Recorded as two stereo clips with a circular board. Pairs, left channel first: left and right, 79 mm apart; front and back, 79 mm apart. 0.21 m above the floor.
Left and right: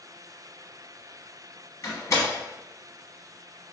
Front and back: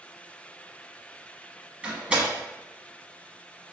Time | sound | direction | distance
1.8 | a door slam | 110° left | 1.2 m